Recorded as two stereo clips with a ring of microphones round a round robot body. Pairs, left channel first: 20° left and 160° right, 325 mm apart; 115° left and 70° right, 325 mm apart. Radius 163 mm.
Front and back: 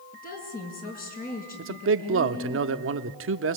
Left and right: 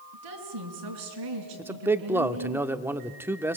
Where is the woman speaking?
40° right, 5 m.